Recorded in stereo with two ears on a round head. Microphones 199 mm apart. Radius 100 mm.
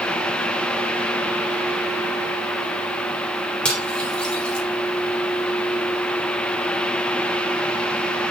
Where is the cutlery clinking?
5° left (ahead or behind), 3.5 m.